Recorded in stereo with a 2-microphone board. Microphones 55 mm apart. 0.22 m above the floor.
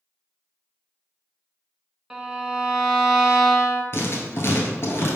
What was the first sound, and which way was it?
A violin, 10° right (ahead or behind).